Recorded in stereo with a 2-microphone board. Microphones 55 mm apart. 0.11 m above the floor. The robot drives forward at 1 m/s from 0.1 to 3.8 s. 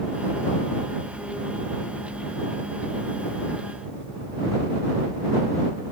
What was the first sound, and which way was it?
Only background noise.